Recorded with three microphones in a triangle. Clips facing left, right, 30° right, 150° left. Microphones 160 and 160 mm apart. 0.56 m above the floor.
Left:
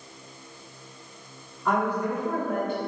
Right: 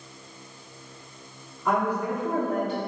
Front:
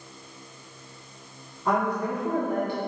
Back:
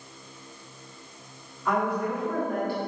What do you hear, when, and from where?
1.6 s a woman speaking: 5° right, 1.5 m; by 2.8 s 90° right, 1.4 m